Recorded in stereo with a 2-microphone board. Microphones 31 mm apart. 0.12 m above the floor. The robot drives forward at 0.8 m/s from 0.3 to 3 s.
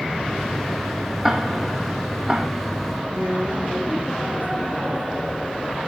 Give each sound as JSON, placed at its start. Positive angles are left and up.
{"t": 1.2, "sound": "ticking", "side_deg": -15, "distance_m": 3.0}
{"t": 3.1, "sound": "a woman speaking", "side_deg": -65, "distance_m": 6.0}